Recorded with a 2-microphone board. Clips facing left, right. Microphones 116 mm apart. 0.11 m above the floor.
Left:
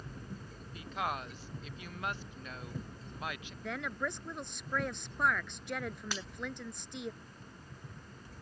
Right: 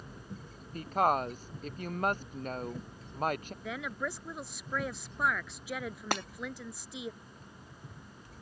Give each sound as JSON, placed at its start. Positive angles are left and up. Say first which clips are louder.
{"t": 0.7, "sound": "a woman speaking", "louder": "right 9 dB", "side_deg": -40}
{"t": 3.6, "sound": "a woman speaking", "louder": "left 1 dB", "side_deg": -5}
{"t": 6.1, "sound": "breaking glass", "louder": "right 8 dB", "side_deg": -55}